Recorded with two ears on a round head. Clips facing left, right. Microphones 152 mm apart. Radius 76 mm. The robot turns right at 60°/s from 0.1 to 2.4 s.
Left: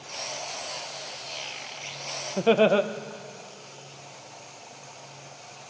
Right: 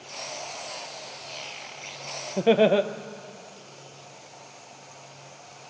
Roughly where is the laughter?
Centre.